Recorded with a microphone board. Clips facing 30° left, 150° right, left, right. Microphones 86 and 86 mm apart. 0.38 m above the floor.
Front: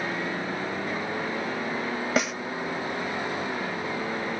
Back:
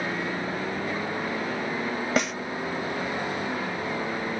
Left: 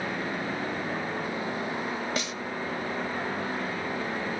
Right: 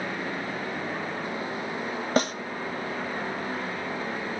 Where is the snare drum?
60° right, 0.6 m.